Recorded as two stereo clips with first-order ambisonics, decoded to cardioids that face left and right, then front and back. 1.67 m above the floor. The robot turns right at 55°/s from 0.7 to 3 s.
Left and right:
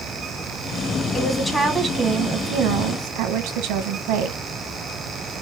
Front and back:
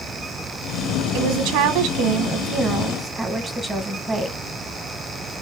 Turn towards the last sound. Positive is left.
turn(degrees=-100)